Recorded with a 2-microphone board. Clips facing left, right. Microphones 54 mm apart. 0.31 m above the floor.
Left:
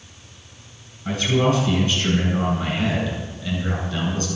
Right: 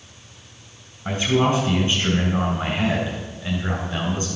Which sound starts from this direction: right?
A man speaking, at 1.1 s.